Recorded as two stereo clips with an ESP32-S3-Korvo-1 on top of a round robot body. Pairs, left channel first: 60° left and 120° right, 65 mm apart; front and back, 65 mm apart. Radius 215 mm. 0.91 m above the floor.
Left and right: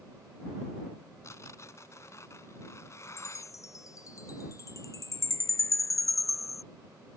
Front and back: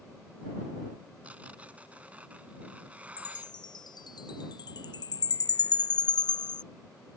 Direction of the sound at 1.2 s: 110° left.